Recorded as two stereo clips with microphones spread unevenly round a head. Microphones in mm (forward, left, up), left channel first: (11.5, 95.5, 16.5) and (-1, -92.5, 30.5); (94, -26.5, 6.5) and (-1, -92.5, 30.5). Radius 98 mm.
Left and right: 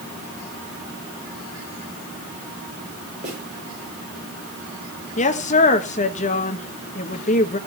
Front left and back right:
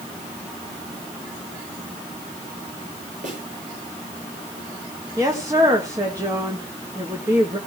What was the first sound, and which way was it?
A snare drum, 145° right.